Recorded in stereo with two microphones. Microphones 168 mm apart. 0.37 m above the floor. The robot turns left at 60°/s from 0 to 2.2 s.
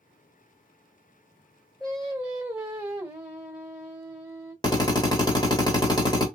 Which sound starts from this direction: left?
A drill, at 4.6 s.